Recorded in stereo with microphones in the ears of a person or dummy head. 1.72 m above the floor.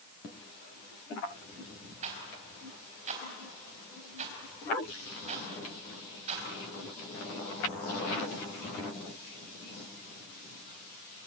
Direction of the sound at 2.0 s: 40° right (ahead or behind).